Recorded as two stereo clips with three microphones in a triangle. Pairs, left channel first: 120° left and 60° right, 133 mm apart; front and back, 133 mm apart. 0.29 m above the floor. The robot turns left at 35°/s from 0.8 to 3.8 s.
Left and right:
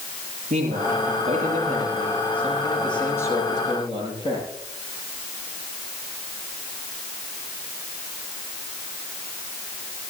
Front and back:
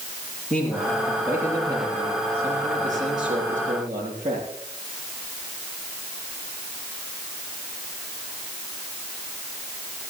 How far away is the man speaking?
About 7 m.